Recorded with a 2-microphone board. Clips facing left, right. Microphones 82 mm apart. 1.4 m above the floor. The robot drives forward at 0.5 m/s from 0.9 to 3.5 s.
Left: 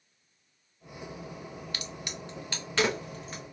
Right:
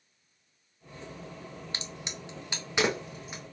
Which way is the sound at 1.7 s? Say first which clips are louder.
Left 1 dB; 25° right (ahead or behind).